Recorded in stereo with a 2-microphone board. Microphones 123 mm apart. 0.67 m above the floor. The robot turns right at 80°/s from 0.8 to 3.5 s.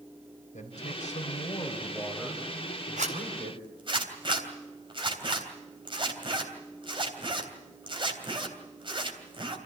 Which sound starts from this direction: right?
A zipper, at 3.0 s.